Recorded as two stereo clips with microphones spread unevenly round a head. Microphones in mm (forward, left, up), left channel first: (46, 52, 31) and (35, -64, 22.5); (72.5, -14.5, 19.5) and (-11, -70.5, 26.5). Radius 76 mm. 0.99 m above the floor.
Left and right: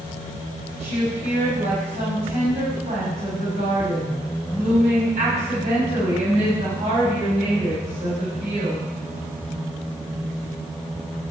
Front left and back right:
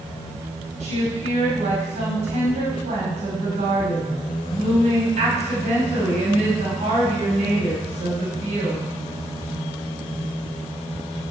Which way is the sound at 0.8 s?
140° right.